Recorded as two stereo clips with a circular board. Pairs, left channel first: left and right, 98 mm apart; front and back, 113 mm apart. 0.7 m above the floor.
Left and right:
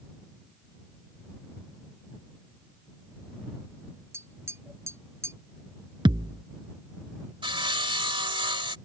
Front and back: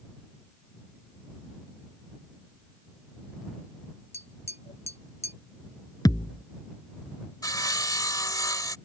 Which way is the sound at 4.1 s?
25° right.